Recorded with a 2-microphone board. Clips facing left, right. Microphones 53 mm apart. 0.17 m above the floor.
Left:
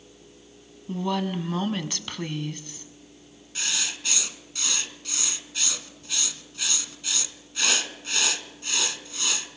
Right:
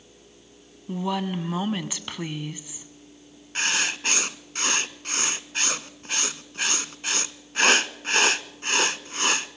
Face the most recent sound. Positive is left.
turn(degrees=-50)  # may be behind; listen again after turning